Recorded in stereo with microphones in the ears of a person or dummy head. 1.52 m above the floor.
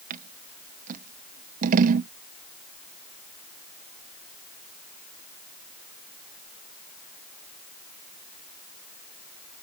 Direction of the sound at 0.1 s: 45° right (ahead or behind).